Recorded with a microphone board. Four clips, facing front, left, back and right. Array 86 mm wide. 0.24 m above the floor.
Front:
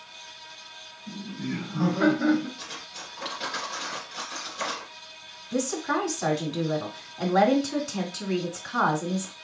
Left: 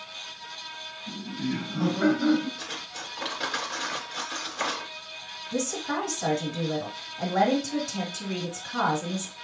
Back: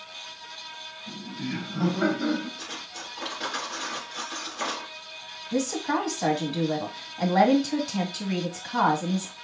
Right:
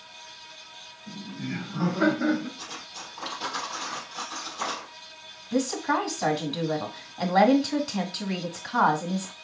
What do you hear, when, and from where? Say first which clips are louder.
1.1 s laughter: left 4 dB, front 1 dB; 175° right, 1.9 m; by 2.5 s 40° right, 1.7 m
2.6 s cutlery clinking: left 2 dB, back 2 dB; 100° left, 2 m
5.5 s a woman speaking: right 4 dB, back 1 dB; 110° right, 1.5 m